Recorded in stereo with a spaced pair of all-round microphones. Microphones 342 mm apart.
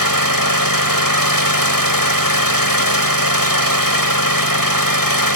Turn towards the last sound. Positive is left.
turn(degrees=70)  # may be behind; listen again after turning